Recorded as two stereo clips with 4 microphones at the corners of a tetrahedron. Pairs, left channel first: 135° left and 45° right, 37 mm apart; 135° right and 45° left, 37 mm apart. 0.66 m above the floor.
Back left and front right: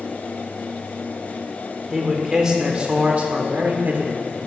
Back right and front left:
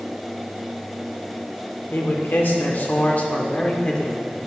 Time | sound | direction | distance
1.9 | a man speaking | 130° right | 1.4 m